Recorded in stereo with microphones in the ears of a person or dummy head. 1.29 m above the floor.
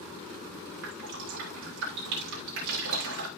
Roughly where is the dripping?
Right.